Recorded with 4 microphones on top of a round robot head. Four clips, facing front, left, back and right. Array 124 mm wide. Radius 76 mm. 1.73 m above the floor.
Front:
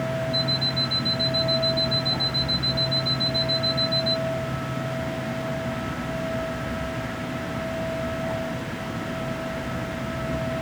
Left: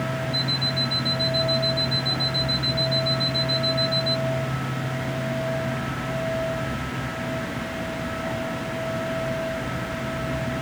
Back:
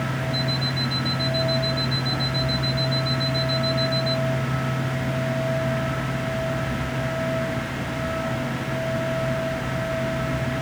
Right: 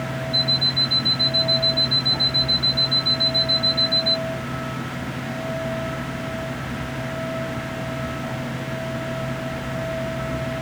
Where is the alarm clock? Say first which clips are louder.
Right 1 dB, back 1 dB; 15° right.